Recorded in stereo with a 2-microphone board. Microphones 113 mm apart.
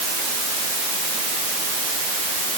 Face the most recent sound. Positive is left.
No sound to turn to.